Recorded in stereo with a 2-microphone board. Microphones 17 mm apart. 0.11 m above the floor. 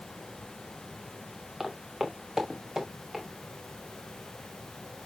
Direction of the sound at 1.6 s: 20° right (ahead or behind).